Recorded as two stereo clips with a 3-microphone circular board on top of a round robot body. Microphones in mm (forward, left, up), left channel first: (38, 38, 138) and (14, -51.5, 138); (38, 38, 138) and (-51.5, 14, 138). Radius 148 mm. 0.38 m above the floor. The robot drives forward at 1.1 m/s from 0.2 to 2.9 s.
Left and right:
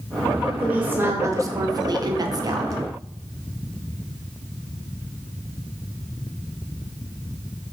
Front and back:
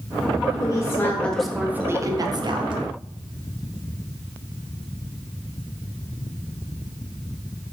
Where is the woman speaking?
30° right, 1.6 m; by 2.8 s 150° right, 1.7 m.